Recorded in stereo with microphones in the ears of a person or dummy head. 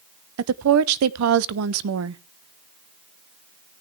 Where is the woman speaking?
75° right (ahead or behind), 0.7 m.